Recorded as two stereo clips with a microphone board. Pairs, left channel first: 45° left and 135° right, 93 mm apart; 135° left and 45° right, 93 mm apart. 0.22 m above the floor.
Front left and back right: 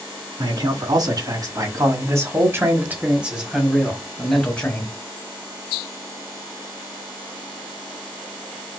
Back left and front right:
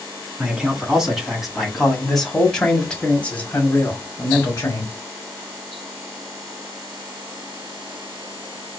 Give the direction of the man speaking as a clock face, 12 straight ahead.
4 o'clock.